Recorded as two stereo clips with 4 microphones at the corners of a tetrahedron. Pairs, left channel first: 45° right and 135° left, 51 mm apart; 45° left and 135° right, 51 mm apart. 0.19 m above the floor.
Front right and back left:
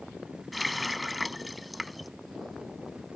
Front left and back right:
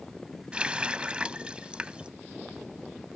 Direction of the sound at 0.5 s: 140° right.